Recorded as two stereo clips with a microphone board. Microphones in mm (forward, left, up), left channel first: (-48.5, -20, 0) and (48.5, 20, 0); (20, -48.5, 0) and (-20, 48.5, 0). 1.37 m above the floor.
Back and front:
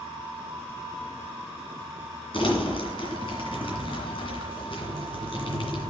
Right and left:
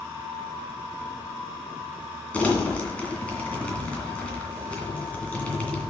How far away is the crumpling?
About 2 m.